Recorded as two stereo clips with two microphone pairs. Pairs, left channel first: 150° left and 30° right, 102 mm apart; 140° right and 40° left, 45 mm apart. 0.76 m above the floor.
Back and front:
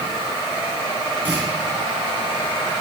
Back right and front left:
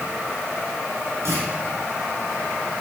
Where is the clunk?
45° left, 4.5 m.